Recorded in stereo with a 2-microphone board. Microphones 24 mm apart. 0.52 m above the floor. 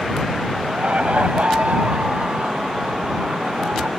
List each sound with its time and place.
0.6 s laughter: 70° right (ahead or behind); by 3.9 s 65° right (ahead or behind)